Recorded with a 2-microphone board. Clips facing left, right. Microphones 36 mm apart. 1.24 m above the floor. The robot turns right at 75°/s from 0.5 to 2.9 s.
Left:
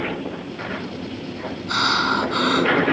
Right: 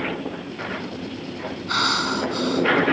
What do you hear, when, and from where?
1.7 s breathing: 5° right; by 2.8 s 75° left